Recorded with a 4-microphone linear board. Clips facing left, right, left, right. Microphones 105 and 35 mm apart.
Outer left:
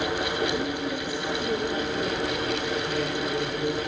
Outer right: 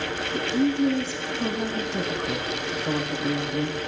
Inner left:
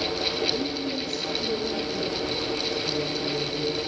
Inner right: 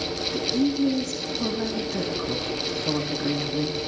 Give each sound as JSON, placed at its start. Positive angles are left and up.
{"t": 0.2, "sound": "a woman speaking", "side_deg": -85, "distance_m": 9.0}